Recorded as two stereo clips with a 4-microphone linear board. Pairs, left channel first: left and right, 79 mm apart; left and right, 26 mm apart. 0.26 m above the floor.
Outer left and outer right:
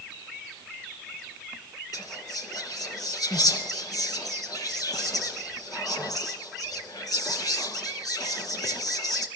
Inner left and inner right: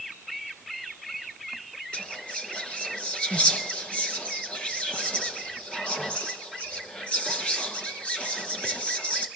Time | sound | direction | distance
1.9 | whispering | 50° left (ahead or behind) | 4 m